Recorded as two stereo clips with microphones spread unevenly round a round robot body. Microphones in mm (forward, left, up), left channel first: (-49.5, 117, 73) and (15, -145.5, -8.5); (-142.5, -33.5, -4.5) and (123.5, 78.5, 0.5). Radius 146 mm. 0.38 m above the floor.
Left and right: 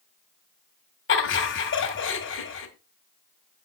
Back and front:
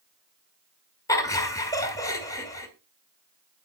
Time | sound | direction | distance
1.1 | laughter | 135° left | 1.6 m